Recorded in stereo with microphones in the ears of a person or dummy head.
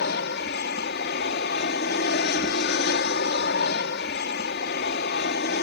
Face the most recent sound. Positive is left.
turn(degrees=50)  # may be behind; listen again after turning